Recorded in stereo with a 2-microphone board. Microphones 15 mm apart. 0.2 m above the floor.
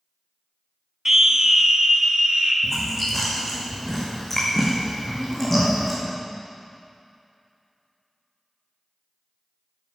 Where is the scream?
25° right (ahead or behind), 1.4 m; by 2.5 s 65° right (ahead or behind), 3 m.